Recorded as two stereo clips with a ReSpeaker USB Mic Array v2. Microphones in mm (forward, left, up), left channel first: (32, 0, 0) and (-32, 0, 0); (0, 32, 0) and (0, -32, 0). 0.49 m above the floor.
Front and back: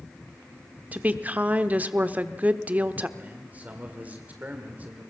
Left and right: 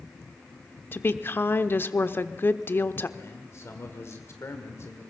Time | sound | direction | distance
0.9 | a woman speaking | 125° left | 0.9 m
3.2 | a man speaking | 120° left | 1.7 m